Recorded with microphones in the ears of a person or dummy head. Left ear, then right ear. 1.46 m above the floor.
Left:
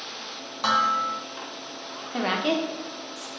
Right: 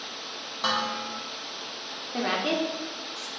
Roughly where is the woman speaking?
Centre.